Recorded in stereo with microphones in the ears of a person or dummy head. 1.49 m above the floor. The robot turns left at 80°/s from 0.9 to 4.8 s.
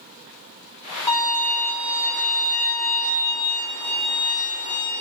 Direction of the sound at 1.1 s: 155° left.